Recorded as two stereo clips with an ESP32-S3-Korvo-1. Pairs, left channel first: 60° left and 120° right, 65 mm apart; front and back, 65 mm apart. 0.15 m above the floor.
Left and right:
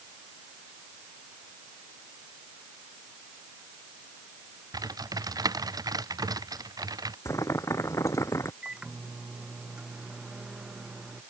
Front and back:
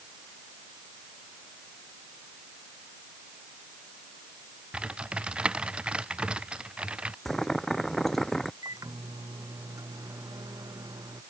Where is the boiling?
85° left.